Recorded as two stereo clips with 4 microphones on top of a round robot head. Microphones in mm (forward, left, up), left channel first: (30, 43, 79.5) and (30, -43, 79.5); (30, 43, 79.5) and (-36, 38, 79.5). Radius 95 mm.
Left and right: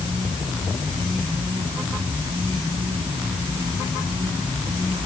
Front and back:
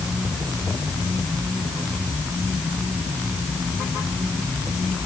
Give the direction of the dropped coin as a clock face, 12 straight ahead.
I don't hear a dropped coin.